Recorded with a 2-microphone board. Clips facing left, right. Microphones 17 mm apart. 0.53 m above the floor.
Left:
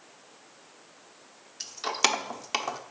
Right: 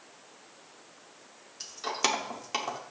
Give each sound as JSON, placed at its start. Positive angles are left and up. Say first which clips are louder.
{"t": 1.6, "sound": "keys jangling", "louder": "left 3 dB", "side_deg": 20, "distance_m": 0.8}